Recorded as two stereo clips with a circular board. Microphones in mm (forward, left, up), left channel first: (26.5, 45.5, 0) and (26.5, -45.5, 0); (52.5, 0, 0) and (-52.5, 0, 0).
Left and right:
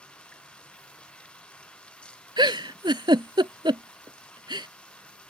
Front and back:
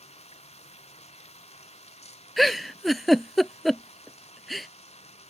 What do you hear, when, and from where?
0.0 s running water: 10° left
2.4 s a giggle: 90° right